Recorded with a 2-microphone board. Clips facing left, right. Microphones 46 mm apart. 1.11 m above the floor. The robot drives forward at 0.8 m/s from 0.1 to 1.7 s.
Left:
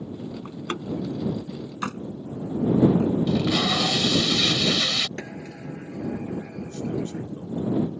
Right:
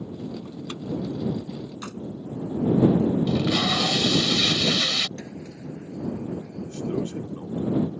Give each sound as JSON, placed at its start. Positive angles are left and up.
{"t": 0.5, "sound": "a door slam", "side_deg": 45}
{"t": 3.3, "sound": "tape being pulled", "side_deg": 0}
{"t": 5.2, "sound": "a sliding door", "side_deg": 60}
{"t": 6.7, "sound": "a man speaking", "side_deg": -35}